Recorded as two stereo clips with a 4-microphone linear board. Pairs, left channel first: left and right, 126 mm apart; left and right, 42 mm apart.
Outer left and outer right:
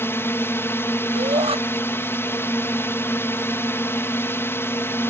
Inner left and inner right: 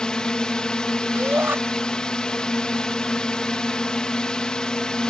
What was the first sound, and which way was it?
A drone, 15° left (ahead or behind).